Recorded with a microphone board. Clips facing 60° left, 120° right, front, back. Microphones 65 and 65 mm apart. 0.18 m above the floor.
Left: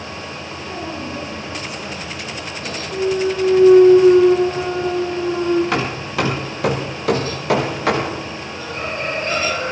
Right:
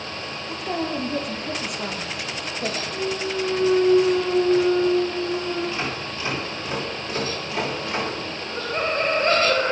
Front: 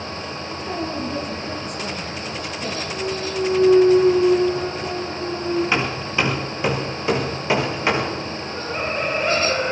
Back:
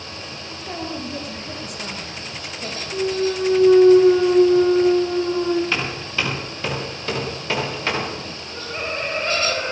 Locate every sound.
0.5 s a woman speaking: 95° right, 8.5 m
2.9 s a clunk: 120° left, 4 m
5.7 s hammering: 70° left, 6.5 m
8.4 s laughter: 80° right, 7.5 m